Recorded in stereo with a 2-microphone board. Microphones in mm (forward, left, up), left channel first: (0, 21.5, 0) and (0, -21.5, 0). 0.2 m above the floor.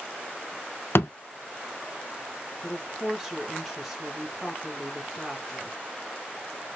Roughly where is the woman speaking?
Centre.